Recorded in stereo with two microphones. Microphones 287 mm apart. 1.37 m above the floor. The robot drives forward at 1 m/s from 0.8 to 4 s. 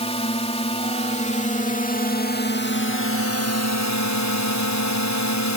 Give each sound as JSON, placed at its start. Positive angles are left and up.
{"t": 0.0, "sound": "a drone", "side_deg": 20}